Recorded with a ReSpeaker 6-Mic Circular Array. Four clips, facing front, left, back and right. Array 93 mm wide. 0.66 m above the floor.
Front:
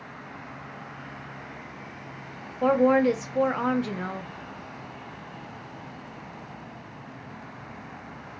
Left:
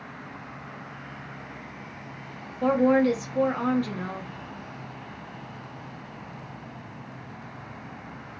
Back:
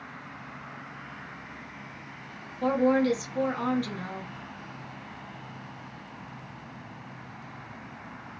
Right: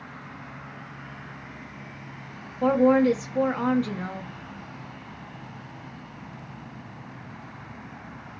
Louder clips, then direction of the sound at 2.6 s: Right 2 dB, front 3 dB; 10° right.